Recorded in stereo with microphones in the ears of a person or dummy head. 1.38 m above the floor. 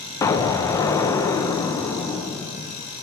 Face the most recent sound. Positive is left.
turn(degrees=20)  # may be behind; listen again after turning